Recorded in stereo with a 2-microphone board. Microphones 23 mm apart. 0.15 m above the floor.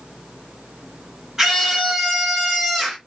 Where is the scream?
20° right (ahead or behind), 1.7 m.